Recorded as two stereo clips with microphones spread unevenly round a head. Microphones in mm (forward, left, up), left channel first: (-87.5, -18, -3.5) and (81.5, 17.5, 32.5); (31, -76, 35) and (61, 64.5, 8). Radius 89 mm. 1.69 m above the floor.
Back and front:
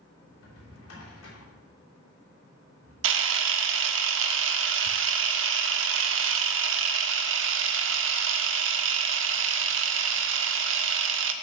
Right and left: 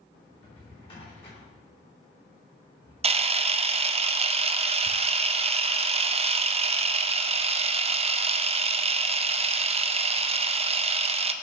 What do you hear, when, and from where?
0.3 s a drawer: 160° right, 3 m
3.0 s a camera shutter: 25° left, 0.6 m